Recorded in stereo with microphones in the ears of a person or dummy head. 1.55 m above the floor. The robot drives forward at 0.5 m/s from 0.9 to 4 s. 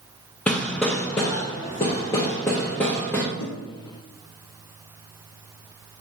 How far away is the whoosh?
About 1.0 m.